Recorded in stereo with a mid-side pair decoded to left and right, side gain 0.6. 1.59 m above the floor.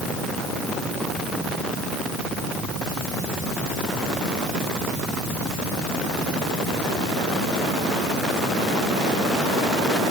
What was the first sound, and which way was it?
Only background noise.